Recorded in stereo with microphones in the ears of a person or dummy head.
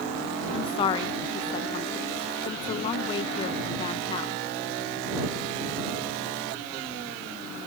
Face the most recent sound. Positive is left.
turn(degrees=30)  # may be behind; listen again after turning